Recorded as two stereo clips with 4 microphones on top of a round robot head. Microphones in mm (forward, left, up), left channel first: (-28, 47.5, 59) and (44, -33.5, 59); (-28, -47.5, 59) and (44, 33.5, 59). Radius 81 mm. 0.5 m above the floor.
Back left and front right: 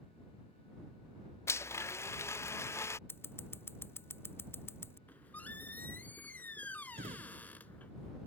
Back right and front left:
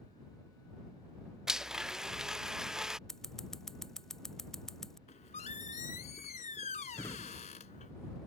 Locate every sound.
1.5 s a blender: 125° left
3.1 s scissors: 150° left
5.1 s a squeak: 155° right
6.9 s a drawer: 65° right